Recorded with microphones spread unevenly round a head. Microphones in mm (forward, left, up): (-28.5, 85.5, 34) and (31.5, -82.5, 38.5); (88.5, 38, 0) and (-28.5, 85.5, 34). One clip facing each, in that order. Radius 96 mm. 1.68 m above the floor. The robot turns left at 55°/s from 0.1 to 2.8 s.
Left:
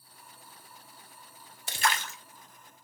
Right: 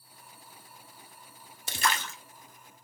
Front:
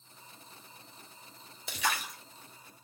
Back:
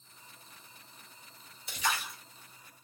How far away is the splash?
About 0.5 m.